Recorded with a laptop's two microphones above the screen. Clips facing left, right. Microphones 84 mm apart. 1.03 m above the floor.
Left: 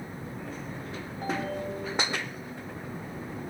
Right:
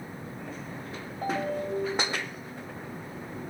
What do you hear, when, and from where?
1.2 s a ringtone: 60° right (ahead or behind), 4.5 m